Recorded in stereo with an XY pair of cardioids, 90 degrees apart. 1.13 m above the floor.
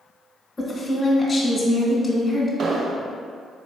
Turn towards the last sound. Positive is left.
turn(degrees=-60)